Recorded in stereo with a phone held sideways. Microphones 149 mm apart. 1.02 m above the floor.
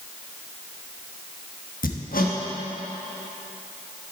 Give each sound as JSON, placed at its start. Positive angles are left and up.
{"t": 1.8, "sound": "hammering", "side_deg": 75, "distance_m": 1.2}